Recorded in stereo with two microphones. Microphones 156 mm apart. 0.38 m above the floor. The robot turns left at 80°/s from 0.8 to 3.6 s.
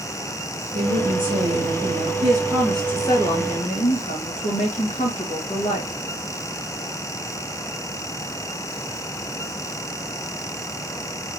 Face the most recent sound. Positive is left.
turn(degrees=110)